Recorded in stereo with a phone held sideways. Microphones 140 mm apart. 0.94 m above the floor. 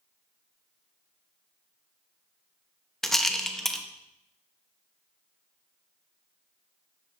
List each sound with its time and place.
3.0 s a rattle: centre (ahead or behind), 0.6 m